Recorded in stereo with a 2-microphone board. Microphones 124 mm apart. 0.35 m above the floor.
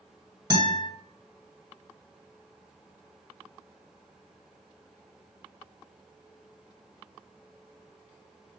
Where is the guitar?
35° right (ahead or behind), 1.8 m.